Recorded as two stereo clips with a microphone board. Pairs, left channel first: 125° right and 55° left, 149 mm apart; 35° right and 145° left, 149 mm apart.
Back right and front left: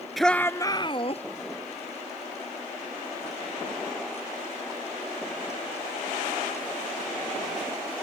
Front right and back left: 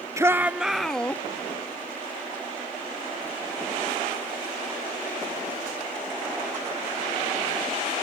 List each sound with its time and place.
0.2 s a shout: 145° left; by 1.2 s 110° right